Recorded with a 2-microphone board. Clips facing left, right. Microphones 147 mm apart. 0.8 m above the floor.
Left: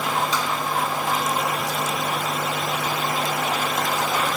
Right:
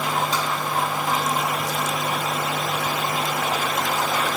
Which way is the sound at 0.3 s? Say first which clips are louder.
Even; 50° right (ahead or behind).